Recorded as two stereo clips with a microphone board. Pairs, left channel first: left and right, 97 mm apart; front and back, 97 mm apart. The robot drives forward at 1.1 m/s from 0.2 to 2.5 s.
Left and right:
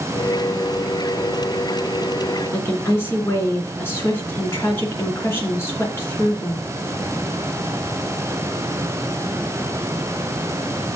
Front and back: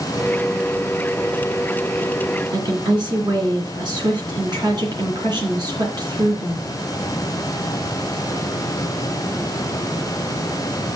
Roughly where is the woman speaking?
Behind left.